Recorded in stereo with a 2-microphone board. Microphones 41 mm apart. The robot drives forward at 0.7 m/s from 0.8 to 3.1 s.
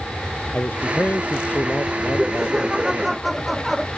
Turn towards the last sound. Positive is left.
turn(degrees=-5)  # may be behind; listen again after turning